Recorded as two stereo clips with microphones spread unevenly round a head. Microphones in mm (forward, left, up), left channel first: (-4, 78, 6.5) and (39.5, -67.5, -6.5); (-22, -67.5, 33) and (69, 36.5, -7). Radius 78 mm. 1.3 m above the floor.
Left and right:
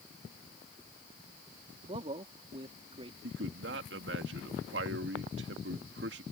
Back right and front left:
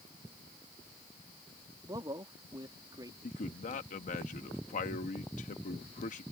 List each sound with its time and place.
1.8 s a man speaking: 15° right
3.2 s a man speaking: 95° right